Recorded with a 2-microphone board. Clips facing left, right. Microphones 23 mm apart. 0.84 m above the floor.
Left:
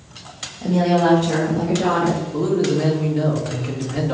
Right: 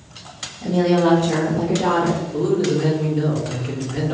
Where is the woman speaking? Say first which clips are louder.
Even; 45° left (ahead or behind), 1.0 m; by 2.2 s 35° left (ahead or behind), 1.5 m.